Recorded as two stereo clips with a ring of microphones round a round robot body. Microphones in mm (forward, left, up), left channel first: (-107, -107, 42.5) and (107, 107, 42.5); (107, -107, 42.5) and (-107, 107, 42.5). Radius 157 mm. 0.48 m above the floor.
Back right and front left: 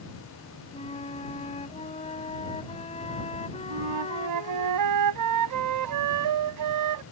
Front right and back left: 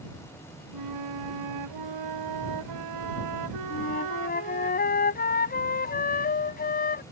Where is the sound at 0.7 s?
155° left.